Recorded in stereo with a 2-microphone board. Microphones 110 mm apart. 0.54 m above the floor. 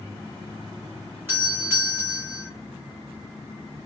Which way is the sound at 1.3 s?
20° right (ahead or behind).